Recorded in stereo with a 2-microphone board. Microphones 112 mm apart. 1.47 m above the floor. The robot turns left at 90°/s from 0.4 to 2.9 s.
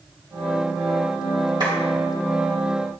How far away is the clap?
About 3 m.